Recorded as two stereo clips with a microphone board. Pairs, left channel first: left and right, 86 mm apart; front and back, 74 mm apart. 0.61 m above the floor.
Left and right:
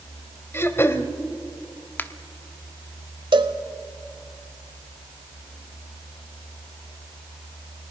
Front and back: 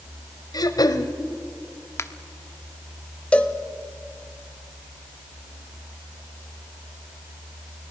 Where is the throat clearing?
30° left, 1.1 m.